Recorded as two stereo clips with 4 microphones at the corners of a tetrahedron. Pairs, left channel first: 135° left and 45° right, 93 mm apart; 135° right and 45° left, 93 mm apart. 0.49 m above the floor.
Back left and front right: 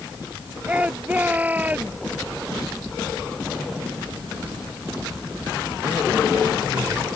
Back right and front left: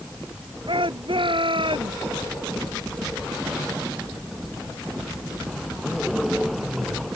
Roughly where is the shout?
Ahead left.